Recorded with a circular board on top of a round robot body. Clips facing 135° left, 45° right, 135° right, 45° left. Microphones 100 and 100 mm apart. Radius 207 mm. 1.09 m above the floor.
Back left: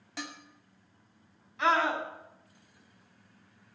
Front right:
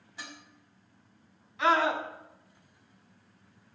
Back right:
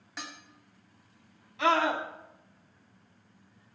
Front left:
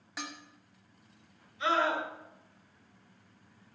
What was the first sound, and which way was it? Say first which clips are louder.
Dishes clattering: back left 5 dB, front left 1 dB; 130° left.